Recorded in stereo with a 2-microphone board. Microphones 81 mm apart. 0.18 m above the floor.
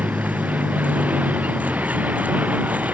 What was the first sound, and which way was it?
A vehicle, 20° right (ahead or behind).